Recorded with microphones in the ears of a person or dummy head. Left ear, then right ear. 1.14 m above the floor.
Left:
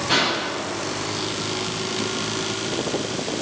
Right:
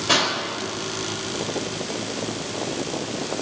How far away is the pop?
About 3.5 m.